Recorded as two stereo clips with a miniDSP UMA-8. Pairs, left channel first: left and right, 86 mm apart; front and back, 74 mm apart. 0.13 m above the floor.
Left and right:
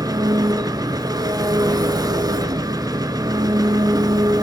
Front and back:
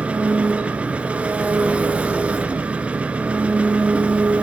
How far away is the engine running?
About 0.9 m.